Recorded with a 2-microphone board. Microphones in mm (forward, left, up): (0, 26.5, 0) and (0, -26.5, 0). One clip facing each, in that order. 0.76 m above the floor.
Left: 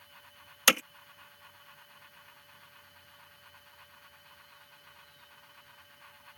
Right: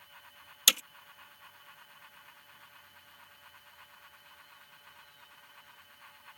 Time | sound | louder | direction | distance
0.7 | hammering | left 5 dB | 45° left (ahead or behind) | ?